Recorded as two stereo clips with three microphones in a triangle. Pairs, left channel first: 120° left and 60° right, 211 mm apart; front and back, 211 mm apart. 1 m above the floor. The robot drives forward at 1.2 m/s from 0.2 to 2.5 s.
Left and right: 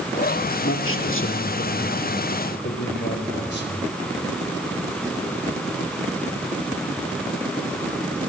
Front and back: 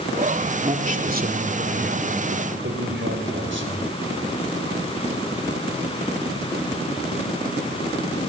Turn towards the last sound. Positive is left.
turn(degrees=155)